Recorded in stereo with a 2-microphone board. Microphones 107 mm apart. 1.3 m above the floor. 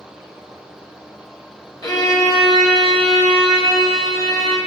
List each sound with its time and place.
1.8 s a violin: 35° left (ahead or behind), 1.1 m